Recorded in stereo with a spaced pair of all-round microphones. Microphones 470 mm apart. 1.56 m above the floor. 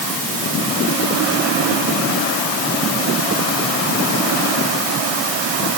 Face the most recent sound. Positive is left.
No sound to turn to.